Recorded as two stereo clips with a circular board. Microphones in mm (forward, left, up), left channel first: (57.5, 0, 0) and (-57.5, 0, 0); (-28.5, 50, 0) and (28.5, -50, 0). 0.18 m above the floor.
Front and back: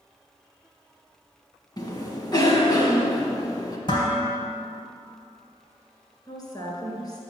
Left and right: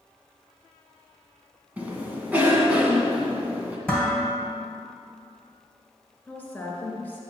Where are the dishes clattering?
40° left, 2.5 m.